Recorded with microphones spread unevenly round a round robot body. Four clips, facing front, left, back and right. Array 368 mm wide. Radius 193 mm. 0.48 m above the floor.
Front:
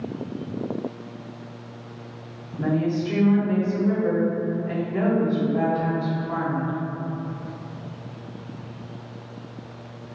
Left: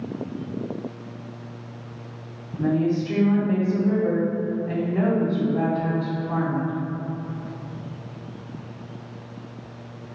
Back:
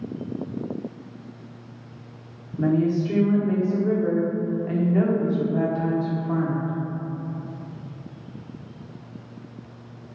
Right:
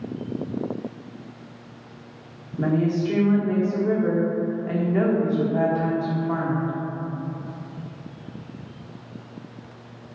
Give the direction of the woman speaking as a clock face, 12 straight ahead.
5 o'clock.